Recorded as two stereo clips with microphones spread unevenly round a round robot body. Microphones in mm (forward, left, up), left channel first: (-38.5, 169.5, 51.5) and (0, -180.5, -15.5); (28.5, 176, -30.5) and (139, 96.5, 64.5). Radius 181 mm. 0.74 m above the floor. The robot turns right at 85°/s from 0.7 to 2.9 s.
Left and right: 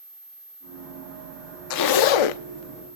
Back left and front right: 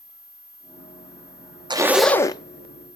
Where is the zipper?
40° left, 0.7 m; by 2.4 s 100° left, 0.7 m.